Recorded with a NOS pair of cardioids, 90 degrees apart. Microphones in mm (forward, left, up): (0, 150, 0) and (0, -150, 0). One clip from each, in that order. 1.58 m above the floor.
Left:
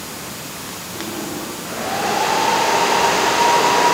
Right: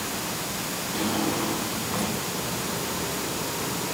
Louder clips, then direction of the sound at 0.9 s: Right 1 dB; 55° right.